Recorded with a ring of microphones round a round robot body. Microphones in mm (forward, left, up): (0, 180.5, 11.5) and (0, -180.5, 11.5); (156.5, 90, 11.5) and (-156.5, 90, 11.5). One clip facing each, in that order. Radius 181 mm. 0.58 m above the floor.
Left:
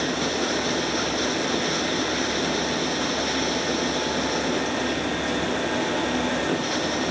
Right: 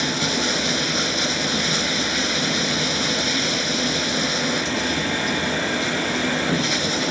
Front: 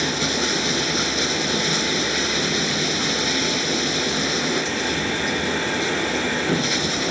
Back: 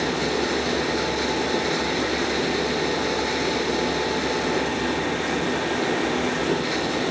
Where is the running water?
55° right.